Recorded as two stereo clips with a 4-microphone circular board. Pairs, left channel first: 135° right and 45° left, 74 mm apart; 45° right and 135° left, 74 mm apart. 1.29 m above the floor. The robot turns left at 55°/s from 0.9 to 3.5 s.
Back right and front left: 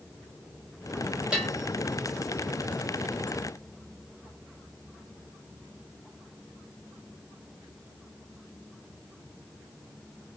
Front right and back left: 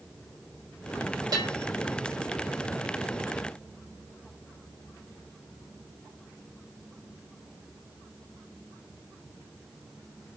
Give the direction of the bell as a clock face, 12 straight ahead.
8 o'clock.